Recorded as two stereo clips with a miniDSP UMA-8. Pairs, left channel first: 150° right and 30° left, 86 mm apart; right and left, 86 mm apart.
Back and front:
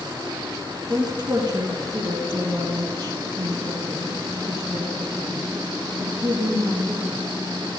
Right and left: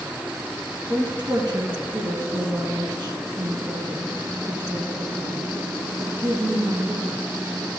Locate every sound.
0.9 s a woman speaking: 65° left, 3.5 m